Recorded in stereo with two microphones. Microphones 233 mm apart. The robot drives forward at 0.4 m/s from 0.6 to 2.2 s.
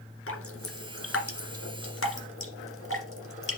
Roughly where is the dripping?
Left.